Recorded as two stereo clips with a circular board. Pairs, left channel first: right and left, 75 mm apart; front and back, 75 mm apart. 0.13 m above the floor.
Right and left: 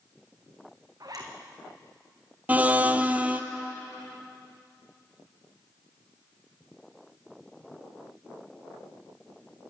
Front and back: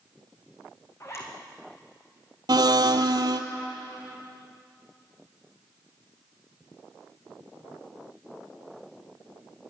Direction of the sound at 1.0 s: 50° left.